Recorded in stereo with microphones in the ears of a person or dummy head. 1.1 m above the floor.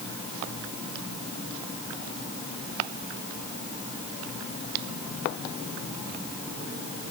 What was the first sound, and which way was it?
Only background noise.